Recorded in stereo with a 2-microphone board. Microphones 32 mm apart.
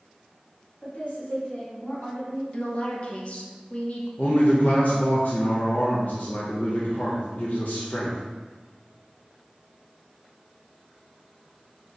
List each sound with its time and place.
0.8 s a woman speaking: 50° left (ahead or behind), 1.8 m; by 2.4 s 65° left (ahead or behind), 1.0 m
2.5 s a woman speaking: 40° left (ahead or behind), 0.7 m
4.2 s a man speaking: 60° left (ahead or behind), 0.6 m